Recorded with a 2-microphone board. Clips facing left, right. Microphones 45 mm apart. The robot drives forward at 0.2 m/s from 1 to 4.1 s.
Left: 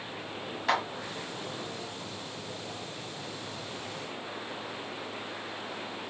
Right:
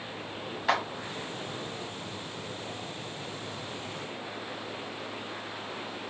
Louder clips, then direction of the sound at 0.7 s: Right 1 dB; 5° right (ahead or behind).